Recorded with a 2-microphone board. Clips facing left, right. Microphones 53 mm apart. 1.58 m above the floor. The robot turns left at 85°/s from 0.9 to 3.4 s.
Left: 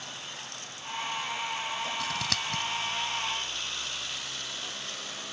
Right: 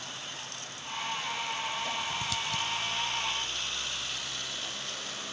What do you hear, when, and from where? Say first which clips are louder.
2.0 s scissors: left 1 dB; 80° left; by 2.6 s 40° left (ahead or behind)